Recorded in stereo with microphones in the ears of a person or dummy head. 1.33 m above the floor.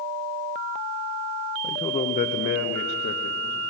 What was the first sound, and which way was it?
A man speaking, 10° left (ahead or behind).